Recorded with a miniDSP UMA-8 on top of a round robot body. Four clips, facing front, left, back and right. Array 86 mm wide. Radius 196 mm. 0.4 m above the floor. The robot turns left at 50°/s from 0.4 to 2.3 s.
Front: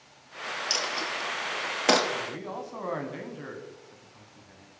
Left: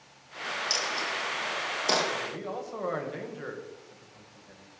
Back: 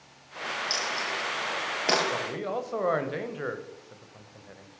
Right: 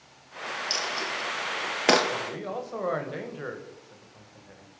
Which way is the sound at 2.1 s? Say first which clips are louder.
Right 2 dB, back 4 dB; 150° right.